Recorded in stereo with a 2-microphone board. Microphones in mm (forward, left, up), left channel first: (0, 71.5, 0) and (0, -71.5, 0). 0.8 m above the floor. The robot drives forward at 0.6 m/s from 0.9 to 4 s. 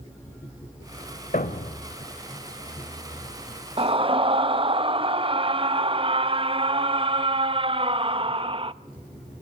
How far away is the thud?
About 1.3 m.